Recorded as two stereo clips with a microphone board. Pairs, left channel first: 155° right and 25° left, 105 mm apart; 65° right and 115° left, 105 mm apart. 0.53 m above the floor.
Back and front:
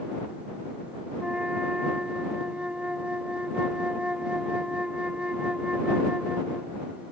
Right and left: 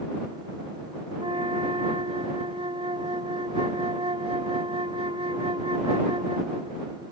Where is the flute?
100° left.